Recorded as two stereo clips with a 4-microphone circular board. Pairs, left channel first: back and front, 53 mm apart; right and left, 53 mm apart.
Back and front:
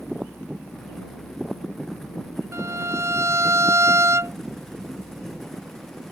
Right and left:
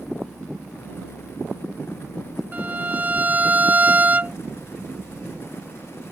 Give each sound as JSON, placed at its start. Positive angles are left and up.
{"t": 2.5, "sound": "a violin", "azimuth_deg": 30}